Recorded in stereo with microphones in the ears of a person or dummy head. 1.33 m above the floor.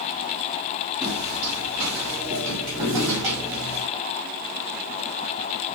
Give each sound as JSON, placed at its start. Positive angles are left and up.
{"t": 1.0, "sound": "footsteps", "side_deg": 0, "distance_m": 2.0}